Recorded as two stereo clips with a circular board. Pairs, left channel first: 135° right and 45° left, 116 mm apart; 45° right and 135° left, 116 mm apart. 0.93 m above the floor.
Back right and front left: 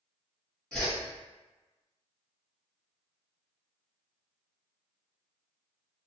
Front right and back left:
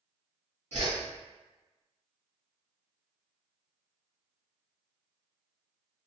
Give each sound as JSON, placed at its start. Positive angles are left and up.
{"t": 0.7, "sound": "a whoosh", "azimuth_deg": 140, "distance_m": 1.2}